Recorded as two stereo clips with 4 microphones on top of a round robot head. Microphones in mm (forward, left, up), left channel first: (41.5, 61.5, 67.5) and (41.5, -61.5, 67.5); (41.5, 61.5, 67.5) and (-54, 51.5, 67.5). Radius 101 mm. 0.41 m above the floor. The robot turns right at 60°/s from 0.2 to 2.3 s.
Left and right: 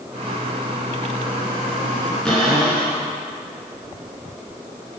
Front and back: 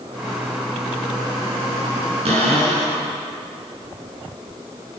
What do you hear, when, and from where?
2.2 s a cupboard door: 175° left, 6 m; by 3.0 s straight behind, 6 m